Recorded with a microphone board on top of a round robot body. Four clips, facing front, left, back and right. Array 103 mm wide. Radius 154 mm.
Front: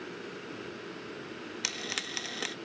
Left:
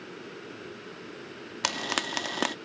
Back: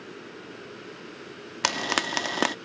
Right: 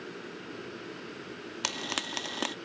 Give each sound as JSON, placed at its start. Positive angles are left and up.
{"t": 1.6, "sound": "frying", "azimuth_deg": 160}